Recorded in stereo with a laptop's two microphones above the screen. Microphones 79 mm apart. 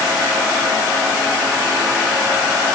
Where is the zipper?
No zipper in this recording.